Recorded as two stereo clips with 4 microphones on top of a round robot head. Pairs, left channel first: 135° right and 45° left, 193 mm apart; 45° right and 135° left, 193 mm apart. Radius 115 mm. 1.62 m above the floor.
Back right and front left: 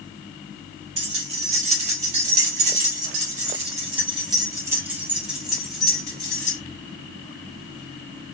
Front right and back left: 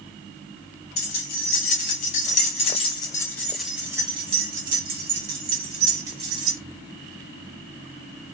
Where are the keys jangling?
10° right, 1.9 m; by 6.6 s 145° left, 1.8 m.